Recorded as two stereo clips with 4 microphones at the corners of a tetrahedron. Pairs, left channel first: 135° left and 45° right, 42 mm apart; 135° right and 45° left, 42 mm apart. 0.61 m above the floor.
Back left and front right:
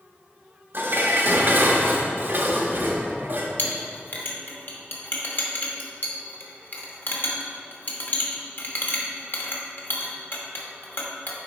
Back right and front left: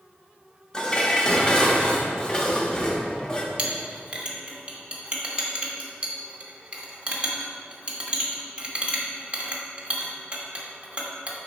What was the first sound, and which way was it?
Dishes clattering, 70° right.